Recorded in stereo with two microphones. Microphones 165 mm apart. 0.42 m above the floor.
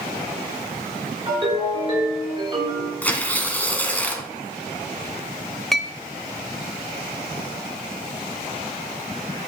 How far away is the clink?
About 0.9 m.